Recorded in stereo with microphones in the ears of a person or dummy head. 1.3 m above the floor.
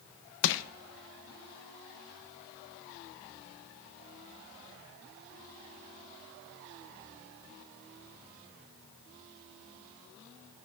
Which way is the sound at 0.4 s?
70° left (ahead or behind).